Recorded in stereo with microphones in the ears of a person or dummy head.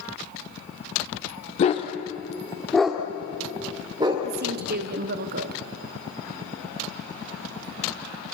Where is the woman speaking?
50° right (ahead or behind), 1.1 m.